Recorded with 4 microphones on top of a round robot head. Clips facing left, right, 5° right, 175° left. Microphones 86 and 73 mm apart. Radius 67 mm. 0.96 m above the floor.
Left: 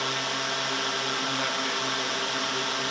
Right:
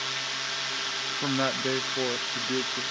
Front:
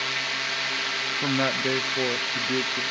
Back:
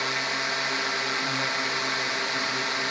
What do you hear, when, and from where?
0.0 s a drone: 115° left
1.2 s a man speaking: 40° right